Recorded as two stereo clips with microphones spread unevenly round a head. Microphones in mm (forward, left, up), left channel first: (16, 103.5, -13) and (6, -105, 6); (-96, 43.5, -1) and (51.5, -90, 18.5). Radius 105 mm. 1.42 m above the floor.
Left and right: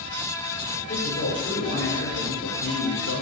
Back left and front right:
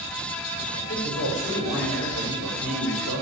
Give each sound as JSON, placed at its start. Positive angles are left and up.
{"t": 0.8, "sound": "a man speaking", "azimuth_deg": 125, "distance_m": 7.0}